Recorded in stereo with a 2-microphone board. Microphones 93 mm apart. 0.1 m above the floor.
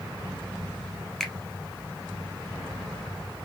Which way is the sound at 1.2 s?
5° left (ahead or behind).